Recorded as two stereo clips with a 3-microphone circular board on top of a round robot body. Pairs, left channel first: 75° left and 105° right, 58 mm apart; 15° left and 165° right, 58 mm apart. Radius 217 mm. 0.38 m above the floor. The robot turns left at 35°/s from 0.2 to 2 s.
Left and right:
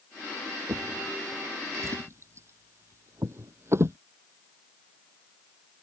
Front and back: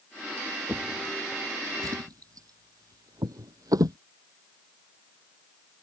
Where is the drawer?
105° right; by 4.0 s 150° right.